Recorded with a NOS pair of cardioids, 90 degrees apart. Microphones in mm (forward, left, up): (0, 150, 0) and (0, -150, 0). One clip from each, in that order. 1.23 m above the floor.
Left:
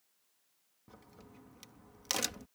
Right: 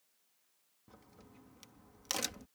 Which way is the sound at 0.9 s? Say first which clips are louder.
Left 3 dB; 15° left.